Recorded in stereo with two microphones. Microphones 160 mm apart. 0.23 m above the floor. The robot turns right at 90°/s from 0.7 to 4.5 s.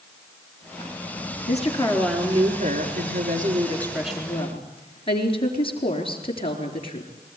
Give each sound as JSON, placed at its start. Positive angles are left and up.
{"t": 1.5, "sound": "a woman speaking", "azimuth_deg": 125, "distance_m": 4.5}